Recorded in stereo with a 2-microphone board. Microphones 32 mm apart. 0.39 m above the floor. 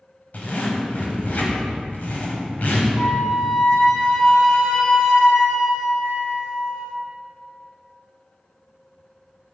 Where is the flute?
30° left (ahead or behind), 1.1 m.